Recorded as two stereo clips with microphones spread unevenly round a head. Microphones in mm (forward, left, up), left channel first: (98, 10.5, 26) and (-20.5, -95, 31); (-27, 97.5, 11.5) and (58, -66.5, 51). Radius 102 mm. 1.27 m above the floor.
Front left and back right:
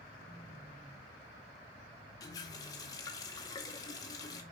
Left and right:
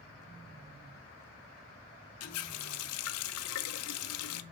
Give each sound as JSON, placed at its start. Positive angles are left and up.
{"t": 2.2, "sound": "a running tap", "azimuth_deg": 115, "distance_m": 0.5}